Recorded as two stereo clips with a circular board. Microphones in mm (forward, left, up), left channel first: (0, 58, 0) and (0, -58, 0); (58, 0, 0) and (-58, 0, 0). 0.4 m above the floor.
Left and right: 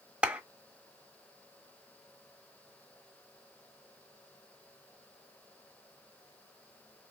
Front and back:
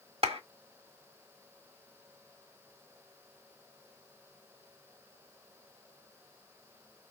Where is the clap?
170° right, 1.3 m.